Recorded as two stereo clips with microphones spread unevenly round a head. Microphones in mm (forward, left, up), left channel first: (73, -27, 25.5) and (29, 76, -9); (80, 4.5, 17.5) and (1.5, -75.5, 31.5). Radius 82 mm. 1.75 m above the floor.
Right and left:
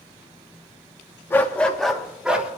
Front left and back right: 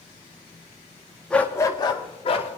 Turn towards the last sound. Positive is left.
turn(degrees=25)